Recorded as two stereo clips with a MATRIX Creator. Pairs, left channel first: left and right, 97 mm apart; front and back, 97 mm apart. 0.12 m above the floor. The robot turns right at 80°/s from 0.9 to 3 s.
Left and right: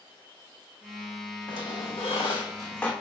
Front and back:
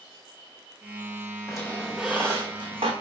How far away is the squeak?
About 0.8 m.